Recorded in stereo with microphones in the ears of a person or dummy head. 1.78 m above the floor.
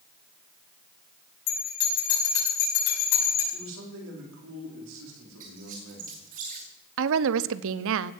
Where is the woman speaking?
80° right, 0.7 m.